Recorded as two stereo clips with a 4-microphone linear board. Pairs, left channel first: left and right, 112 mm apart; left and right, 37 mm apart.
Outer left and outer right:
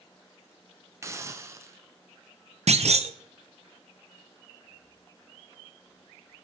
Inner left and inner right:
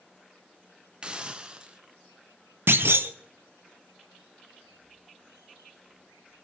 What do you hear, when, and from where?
1.0 s a hiss: 25° right (ahead or behind), 0.7 m
2.7 s a clunk: 70° right (ahead or behind), 0.7 m